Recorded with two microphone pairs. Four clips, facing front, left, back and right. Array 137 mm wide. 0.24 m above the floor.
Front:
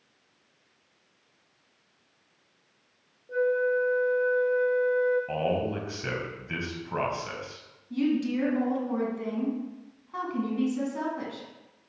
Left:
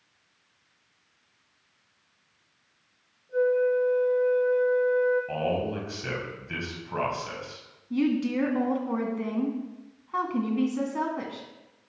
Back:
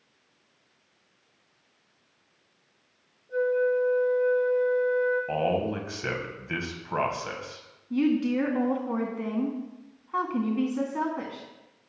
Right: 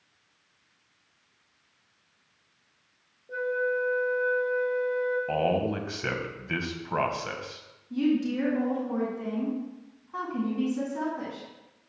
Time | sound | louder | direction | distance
3.3 | a flute | left 5 dB, back 1 dB | 50° right | 2 m
5.3 | a man speaking | right 2 dB, back 2 dB | 125° right | 1.2 m
7.9 | a woman speaking | even, back 2 dB | 140° left | 1.9 m